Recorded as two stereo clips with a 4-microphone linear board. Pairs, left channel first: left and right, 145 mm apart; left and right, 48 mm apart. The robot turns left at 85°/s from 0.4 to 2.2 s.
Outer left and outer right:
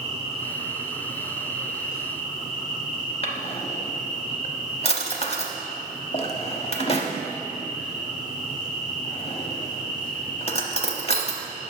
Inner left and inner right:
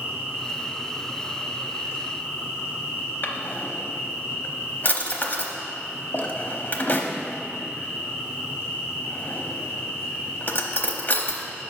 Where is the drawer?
45° left (ahead or behind), 0.7 m.